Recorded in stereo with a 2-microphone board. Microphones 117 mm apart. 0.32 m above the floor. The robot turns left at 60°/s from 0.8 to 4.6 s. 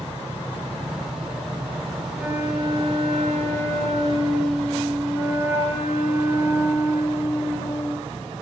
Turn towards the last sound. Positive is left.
turn(degrees=-160)